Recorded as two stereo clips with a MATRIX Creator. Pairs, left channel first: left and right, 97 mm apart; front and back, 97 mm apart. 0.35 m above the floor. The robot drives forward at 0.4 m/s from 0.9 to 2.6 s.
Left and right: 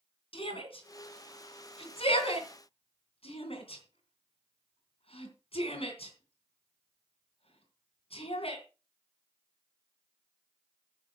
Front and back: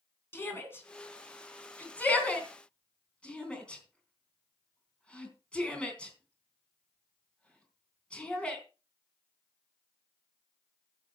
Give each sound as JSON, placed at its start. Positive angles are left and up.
{"t": 0.3, "sound": "a shout", "azimuth_deg": 65, "distance_m": 3.5}